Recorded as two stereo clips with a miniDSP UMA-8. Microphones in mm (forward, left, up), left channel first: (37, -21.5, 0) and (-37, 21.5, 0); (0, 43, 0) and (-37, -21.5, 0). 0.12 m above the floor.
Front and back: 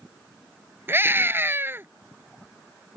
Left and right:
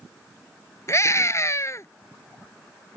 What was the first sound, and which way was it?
A scream, 95° left.